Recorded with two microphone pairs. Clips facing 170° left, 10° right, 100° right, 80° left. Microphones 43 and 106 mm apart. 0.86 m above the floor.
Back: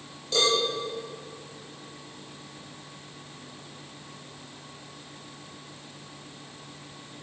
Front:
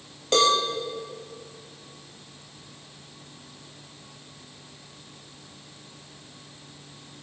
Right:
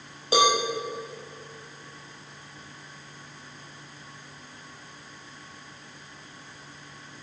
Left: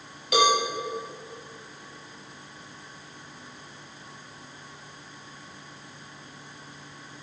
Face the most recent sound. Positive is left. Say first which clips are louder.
# front 4 dB, even
turn(degrees=-40)